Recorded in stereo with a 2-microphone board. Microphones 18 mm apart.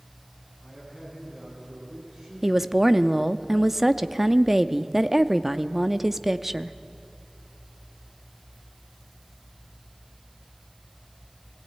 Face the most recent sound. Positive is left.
turn(degrees=-15)  # may be behind; listen again after turning